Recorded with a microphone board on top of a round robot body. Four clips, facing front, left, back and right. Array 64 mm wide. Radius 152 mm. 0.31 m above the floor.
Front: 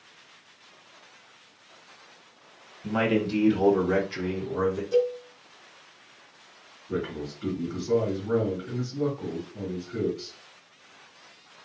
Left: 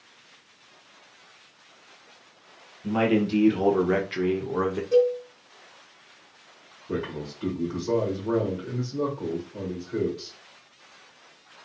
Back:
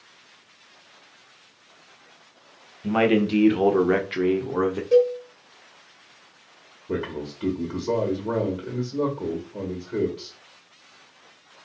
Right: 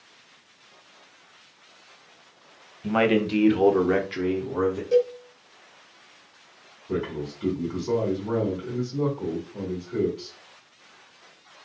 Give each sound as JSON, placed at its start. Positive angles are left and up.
{"t": 2.8, "sound": "a man speaking", "azimuth_deg": -125, "distance_m": 1.3}
{"t": 4.9, "sound": "a cowbell", "azimuth_deg": -165, "distance_m": 1.4}
{"t": 6.9, "sound": "a man speaking", "azimuth_deg": 175, "distance_m": 1.7}